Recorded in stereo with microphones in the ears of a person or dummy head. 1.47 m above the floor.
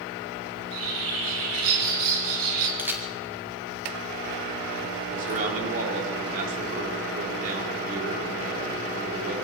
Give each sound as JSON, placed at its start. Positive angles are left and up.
{"t": 0.6, "sound": "a bird", "side_deg": -75, "distance_m": 4.5}
{"t": 2.8, "sound": "a camera shutter", "side_deg": -5, "distance_m": 1.4}
{"t": 5.1, "sound": "a man speaking", "side_deg": -50, "distance_m": 4.0}